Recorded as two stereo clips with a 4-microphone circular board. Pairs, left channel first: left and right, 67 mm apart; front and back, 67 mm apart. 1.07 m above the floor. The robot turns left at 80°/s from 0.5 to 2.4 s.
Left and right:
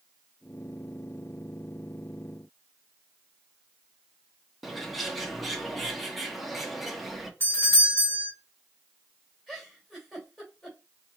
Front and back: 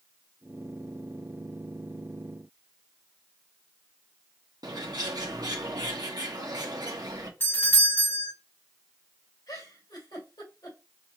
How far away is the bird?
About 0.9 m.